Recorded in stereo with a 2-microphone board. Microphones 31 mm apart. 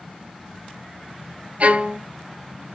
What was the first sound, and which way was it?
A violin, 50° right (ahead or behind).